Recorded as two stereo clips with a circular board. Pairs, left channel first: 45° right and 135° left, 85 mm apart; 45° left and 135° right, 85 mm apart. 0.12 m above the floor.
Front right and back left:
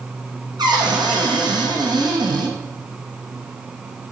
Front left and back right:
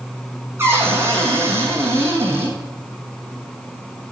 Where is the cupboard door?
165° left, 2.5 m.